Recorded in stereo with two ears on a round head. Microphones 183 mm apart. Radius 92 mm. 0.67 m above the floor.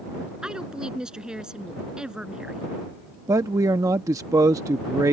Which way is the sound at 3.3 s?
15° right (ahead or behind).